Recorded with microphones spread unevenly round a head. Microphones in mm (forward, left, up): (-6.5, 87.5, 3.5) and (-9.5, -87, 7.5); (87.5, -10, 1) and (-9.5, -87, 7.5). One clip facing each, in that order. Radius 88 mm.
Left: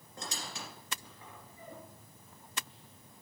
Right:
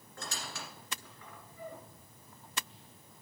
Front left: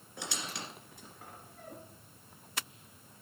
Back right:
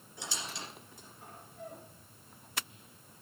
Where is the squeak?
15° left, 2 m.